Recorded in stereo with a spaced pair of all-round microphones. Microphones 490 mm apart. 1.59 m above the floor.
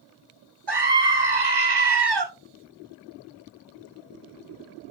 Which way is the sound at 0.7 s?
45° right (ahead or behind).